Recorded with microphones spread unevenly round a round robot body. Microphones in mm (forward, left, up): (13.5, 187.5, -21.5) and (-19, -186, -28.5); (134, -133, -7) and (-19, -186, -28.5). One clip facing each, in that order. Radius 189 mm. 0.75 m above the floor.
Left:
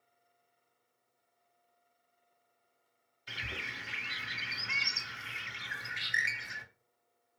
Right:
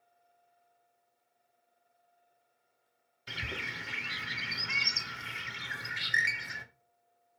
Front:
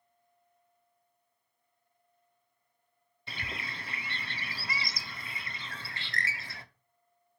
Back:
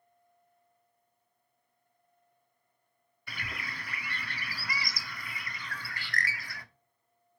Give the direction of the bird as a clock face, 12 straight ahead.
2 o'clock.